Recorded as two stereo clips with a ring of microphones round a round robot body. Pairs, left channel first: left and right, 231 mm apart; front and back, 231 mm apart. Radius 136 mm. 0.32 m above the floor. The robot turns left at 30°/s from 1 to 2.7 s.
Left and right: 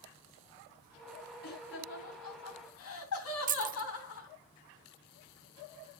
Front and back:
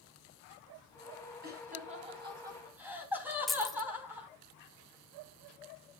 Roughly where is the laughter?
Behind left.